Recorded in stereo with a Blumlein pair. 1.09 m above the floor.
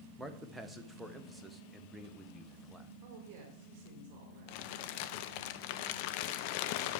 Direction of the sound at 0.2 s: 5° right.